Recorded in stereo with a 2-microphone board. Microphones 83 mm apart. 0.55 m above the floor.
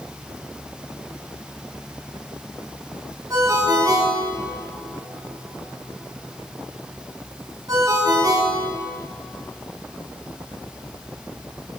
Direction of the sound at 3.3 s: 45° right (ahead or behind).